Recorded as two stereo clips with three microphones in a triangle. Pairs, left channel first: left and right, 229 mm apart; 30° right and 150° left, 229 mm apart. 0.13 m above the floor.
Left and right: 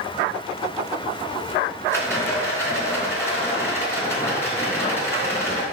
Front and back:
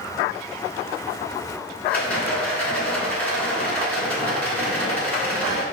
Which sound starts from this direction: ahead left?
A rattle, at 1.9 s.